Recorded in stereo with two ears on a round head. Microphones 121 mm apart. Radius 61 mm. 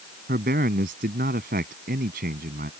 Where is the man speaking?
70° right (ahead or behind).